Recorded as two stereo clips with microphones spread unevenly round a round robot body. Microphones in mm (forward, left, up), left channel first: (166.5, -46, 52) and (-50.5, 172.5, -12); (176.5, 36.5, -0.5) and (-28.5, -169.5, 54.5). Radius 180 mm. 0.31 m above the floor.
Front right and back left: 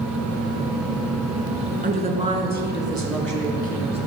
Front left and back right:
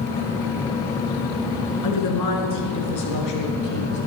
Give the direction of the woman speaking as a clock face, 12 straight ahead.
10 o'clock.